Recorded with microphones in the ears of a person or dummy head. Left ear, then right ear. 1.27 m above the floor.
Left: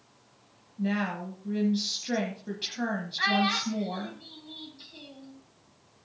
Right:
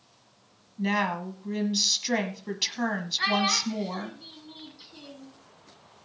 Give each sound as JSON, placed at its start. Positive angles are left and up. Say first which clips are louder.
{"t": 0.8, "sound": "a woman speaking", "louder": "right 5 dB", "side_deg": -25, "distance_m": 1.2}
{"t": 3.2, "sound": "a child speaking", "louder": "even", "side_deg": 5, "distance_m": 3.0}